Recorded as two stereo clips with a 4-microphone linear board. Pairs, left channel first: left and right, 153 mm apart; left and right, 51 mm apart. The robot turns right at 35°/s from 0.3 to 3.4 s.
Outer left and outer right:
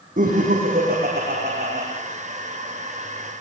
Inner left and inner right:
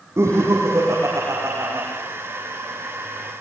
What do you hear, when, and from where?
0.2 s laughter: 115° right, 7 m; by 1.9 s 55° right, 7 m